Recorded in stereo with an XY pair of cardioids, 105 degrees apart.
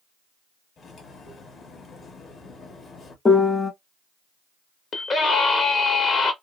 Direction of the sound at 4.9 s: 50° left.